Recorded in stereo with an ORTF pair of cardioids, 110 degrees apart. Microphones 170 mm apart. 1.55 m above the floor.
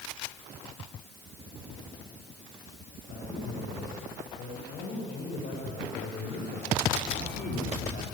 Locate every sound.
3.1 s a man speaking: 60° left, 10 m